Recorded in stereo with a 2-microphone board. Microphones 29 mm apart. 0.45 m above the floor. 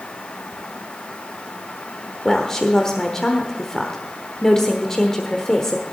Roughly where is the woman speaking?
Centre.